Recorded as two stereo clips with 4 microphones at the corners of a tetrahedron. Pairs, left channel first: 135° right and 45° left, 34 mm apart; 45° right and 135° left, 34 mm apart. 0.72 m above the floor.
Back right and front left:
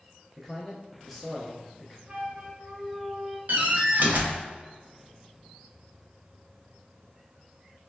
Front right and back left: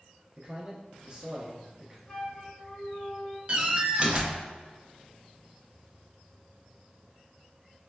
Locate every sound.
0.4 s a man speaking: 145° left, 0.6 m
2.1 s a flute: 15° left, 1.3 m
3.5 s a door slam: 75° left, 0.5 m